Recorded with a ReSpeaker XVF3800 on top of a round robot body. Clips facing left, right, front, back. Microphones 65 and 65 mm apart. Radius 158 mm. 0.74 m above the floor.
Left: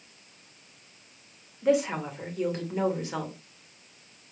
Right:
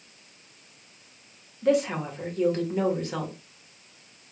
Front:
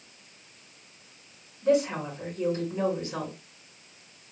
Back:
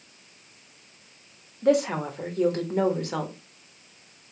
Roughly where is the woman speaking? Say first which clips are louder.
Right 1 dB, back 2 dB; behind.